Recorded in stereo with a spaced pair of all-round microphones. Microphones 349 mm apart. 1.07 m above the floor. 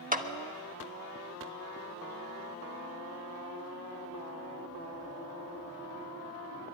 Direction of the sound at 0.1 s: 20° right (ahead or behind).